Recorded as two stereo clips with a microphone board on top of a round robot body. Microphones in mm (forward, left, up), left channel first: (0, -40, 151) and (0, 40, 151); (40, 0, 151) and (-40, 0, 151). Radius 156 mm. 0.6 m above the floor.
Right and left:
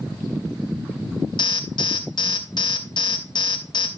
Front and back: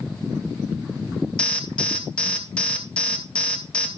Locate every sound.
1.4 s an alarm: 75° right, 1.4 m